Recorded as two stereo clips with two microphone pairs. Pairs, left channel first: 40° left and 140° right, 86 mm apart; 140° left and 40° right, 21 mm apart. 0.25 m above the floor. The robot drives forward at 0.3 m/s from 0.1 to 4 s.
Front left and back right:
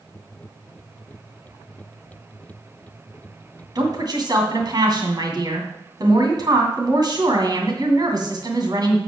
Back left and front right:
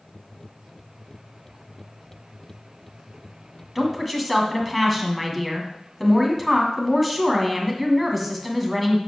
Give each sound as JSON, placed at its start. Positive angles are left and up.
{"t": 3.8, "sound": "a woman speaking", "azimuth_deg": -135, "distance_m": 2.0}